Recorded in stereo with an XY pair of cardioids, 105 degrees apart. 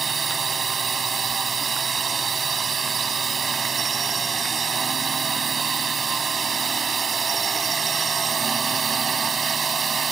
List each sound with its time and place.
0.0 s a drone: 40° right